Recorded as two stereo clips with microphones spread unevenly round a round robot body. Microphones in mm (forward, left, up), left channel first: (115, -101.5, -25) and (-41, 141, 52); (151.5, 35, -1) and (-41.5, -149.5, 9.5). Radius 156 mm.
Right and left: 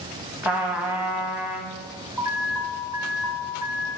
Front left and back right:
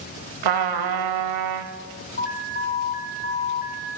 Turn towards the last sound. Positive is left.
turn(degrees=30)